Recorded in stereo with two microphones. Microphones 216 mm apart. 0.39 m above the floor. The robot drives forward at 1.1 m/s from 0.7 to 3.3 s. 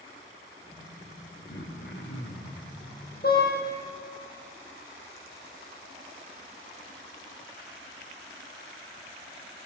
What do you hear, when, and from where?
1.5 s throat clearing: 50° left (ahead or behind), 6.5 m; by 2.7 s 60° left (ahead or behind), 6 m
3.2 s a car horn: 45° left (ahead or behind), 7 m